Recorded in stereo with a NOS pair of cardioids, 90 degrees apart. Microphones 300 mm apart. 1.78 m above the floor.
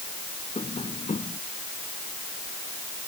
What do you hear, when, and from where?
0.6 s tapping: 20° left